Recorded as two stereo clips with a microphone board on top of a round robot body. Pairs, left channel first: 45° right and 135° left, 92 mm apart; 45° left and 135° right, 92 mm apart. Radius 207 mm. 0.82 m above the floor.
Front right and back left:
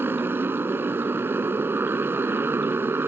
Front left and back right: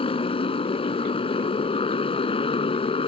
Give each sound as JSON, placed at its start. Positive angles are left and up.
{"t": 0.0, "sound": "a motorcycle", "azimuth_deg": 65}